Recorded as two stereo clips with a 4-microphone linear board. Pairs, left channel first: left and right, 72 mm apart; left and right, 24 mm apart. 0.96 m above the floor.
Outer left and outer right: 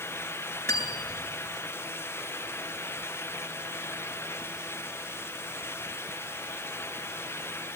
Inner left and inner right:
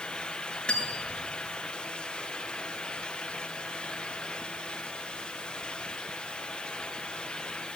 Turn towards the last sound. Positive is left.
turn(degrees=35)  # may be behind; listen again after turning